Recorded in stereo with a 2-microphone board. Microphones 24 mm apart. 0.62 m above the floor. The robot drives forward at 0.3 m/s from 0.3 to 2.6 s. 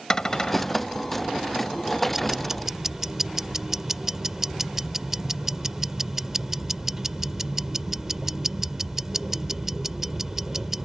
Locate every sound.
0.1 s a cupboard door: 25° left (ahead or behind); by 0.9 s 30° left (ahead or behind)
2.1 s ticking: 20° right (ahead or behind)